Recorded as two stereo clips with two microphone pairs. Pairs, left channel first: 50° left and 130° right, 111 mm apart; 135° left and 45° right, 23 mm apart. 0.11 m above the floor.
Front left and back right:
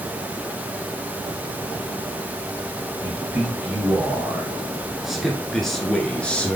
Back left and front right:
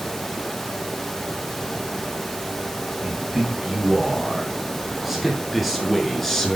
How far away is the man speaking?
About 2 m.